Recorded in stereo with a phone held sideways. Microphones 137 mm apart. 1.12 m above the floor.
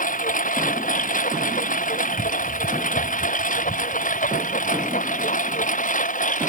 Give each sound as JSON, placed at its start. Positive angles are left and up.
{"t": 0.0, "sound": "a lawn mower", "side_deg": 75}